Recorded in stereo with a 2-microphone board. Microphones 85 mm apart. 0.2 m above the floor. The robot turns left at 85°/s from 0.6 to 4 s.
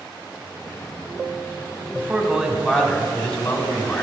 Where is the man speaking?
20° right (ahead or behind), 1.3 m; by 4.0 s 20° left (ahead or behind), 1.3 m.